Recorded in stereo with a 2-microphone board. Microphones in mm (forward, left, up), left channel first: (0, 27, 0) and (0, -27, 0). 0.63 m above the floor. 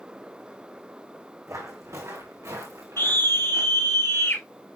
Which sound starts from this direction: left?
A scream, at 3.0 s.